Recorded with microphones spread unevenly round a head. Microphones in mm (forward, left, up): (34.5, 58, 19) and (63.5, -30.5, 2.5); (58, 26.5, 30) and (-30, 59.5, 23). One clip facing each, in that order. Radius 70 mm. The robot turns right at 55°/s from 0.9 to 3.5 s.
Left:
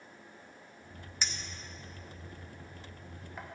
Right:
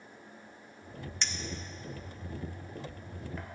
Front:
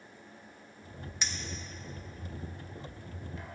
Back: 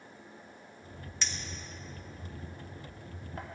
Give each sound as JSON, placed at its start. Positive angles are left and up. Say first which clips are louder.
{"t": 1.2, "sound": "a clink", "louder": "right 2 dB, front 1 dB", "azimuth_deg": 45, "distance_m": 0.8}